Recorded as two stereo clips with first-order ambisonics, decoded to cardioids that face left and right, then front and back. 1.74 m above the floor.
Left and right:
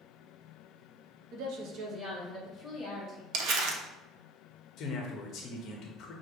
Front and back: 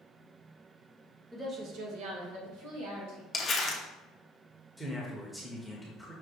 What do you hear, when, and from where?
1.3 s a woman speaking: 95° right, 0.9 m; by 3.2 s 160° left, 2.5 m
3.3 s crumpling: 65° right, 0.6 m
4.8 s a man speaking: 90° left, 0.6 m